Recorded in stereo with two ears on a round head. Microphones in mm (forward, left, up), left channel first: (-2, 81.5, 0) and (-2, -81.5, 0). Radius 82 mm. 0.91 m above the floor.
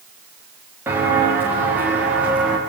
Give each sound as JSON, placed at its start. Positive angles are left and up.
{"t": 0.9, "sound": "footsteps", "side_deg": -15, "distance_m": 8.5}